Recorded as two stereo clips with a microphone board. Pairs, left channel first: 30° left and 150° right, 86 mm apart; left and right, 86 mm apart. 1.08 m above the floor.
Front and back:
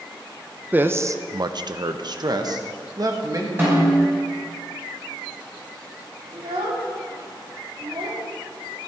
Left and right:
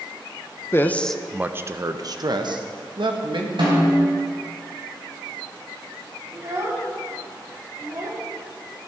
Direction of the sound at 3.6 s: 85° right.